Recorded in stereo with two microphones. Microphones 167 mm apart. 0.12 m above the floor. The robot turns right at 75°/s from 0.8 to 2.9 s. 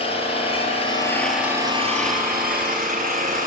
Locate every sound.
0.0 s an engine running: 140° left, 1.3 m; by 3.5 s 60° right, 1.3 m